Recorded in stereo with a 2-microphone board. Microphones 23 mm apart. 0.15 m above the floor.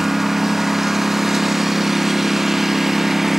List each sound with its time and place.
0.0 s a lawn mower: 10° right (ahead or behind)